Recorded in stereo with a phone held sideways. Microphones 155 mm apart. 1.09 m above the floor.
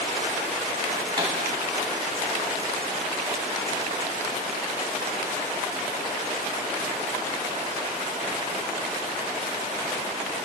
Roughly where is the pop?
Right.